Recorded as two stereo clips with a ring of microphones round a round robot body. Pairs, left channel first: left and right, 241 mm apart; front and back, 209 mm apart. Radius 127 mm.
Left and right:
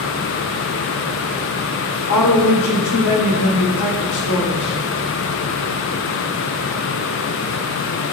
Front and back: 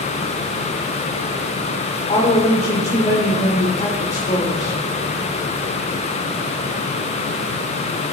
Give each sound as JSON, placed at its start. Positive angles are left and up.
{"t": 2.1, "sound": "a woman speaking", "azimuth_deg": 60, "distance_m": 3.0}